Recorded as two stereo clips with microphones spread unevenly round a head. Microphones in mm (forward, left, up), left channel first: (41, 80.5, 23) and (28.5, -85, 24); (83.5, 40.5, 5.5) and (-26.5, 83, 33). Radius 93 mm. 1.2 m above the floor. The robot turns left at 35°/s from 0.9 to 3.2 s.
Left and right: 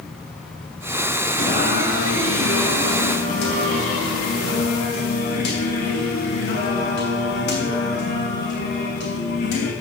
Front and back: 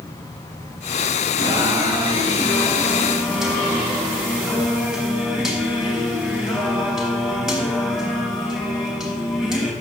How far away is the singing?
About 4 m.